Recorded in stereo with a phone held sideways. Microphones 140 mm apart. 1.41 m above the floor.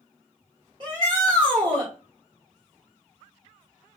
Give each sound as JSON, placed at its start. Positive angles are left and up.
{"t": 0.8, "sound": "a shout", "side_deg": -35, "distance_m": 1.6}